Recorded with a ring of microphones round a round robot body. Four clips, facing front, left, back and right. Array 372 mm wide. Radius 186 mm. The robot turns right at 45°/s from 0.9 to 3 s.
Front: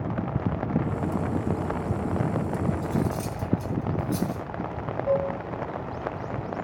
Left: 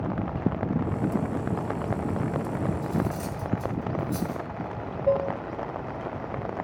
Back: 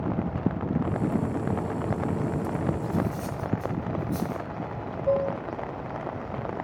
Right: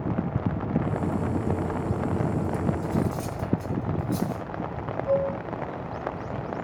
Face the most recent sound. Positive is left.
turn(degrees=90)